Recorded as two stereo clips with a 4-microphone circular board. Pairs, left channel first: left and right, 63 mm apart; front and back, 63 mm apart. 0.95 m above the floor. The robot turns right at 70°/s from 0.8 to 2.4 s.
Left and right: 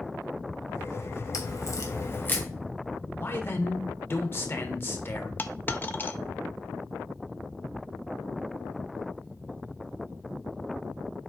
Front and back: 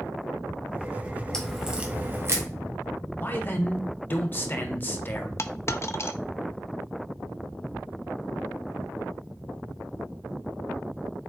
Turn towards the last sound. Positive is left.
turn(degrees=35)